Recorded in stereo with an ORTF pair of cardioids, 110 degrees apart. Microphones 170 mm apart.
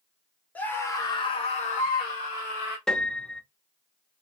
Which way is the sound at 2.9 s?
5° left.